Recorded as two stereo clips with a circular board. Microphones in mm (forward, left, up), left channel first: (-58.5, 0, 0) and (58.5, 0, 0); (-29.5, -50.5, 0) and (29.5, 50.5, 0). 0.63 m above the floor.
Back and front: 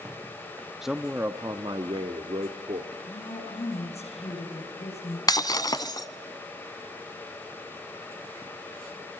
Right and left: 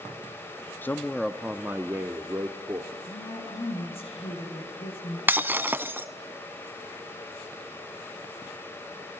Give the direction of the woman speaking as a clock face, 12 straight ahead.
5 o'clock.